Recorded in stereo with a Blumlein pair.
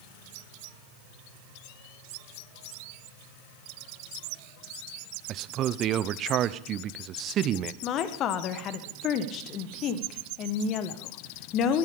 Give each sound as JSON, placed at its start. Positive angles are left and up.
{"t": 5.3, "sound": "a man speaking", "azimuth_deg": -30, "distance_m": 0.7}
{"t": 7.8, "sound": "a woman speaking", "azimuth_deg": 30, "distance_m": 1.6}